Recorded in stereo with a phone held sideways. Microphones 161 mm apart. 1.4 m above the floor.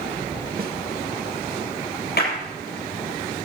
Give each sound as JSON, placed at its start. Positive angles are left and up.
{"t": 0.6, "sound": "a snare drum", "side_deg": -65, "distance_m": 1.7}
{"t": 2.2, "sound": "a clap", "side_deg": 85, "distance_m": 6.5}